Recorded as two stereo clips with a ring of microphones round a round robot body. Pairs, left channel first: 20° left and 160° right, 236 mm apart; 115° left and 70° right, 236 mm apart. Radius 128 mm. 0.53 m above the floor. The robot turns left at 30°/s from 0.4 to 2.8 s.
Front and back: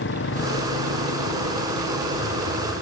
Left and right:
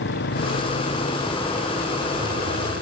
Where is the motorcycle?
65° left; by 2.8 s 20° right.